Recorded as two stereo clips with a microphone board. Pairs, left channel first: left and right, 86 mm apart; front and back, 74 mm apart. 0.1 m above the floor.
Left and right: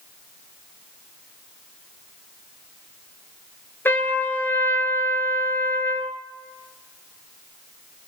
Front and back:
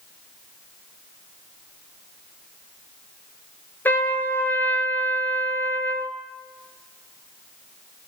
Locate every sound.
3.9 s a trumpet: 40° left, 0.6 m